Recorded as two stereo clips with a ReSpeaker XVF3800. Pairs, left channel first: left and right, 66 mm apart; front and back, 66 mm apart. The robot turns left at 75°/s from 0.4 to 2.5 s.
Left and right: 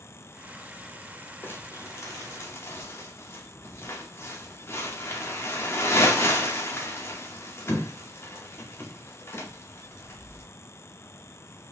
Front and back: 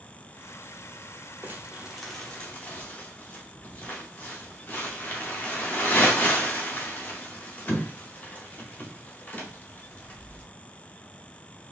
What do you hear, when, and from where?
1.4 s crumpling: 135° left, 0.9 m; by 10.4 s 55° left, 0.9 m